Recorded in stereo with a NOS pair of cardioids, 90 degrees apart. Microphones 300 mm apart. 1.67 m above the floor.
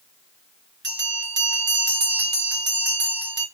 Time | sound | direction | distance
0.8 | a bell | 35° right | 1.2 m